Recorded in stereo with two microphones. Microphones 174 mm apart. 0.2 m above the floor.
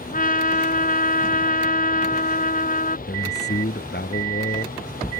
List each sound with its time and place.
0.1 s a trumpet: 55° left (ahead or behind)
3.1 s a man speaking: 70° left (ahead or behind)